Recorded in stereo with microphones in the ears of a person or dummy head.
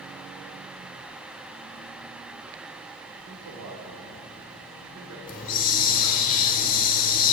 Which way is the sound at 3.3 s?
75° right (ahead or behind).